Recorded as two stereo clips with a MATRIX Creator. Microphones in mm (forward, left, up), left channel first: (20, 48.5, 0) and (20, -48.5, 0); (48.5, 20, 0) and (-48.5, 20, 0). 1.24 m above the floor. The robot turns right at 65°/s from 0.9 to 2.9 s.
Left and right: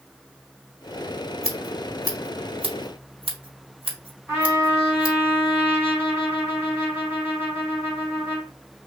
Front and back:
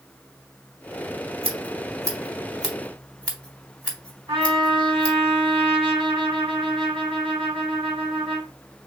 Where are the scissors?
170° right, 2 m; by 5.2 s 75° right, 2 m.